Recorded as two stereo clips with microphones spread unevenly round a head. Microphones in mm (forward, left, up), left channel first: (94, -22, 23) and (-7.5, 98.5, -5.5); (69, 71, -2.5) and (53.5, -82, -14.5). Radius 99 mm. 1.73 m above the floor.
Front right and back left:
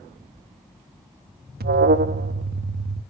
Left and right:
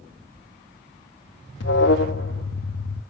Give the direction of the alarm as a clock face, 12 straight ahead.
8 o'clock.